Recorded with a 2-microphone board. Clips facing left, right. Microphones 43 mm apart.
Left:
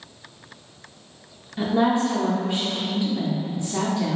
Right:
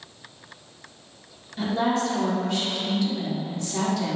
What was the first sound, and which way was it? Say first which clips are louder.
A woman speaking: left 3 dB; 20° left (ahead or behind).